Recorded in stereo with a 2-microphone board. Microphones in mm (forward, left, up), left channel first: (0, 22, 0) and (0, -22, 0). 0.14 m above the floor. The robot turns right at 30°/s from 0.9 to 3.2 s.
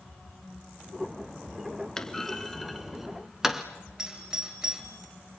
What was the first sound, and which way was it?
A clunk, 15° left (ahead or behind).